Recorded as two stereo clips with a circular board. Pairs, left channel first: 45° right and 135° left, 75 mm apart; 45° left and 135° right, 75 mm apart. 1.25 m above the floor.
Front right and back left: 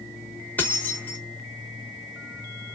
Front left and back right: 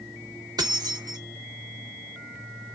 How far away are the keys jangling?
About 1.3 m.